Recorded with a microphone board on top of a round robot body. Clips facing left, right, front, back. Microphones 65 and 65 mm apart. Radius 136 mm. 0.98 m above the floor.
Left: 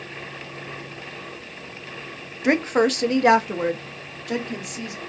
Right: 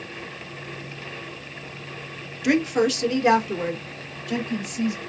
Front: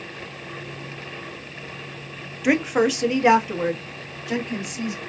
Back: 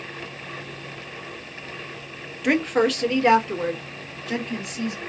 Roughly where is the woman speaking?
Left.